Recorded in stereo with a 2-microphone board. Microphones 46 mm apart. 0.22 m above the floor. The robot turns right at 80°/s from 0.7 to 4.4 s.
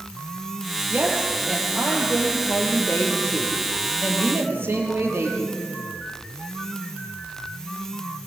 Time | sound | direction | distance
0.9 | a woman speaking | 45° right | 7 m